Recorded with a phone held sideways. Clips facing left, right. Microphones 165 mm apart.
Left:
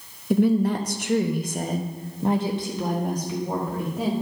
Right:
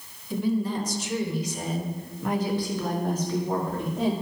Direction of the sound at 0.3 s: 70° left (ahead or behind).